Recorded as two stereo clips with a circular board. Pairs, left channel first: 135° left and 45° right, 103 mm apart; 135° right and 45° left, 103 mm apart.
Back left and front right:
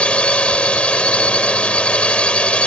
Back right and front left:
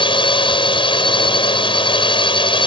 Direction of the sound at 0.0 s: 145° right.